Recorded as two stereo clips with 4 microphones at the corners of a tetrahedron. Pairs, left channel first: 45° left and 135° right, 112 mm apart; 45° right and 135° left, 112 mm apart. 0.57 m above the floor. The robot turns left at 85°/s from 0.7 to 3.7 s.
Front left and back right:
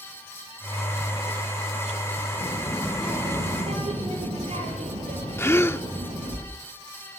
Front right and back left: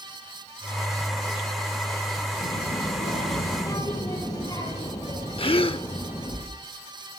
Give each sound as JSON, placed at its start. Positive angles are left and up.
{"t": 2.4, "sound": "a child speaking", "azimuth_deg": 10, "distance_m": 8.5}
{"t": 5.4, "sound": "a gasp", "azimuth_deg": -20, "distance_m": 0.7}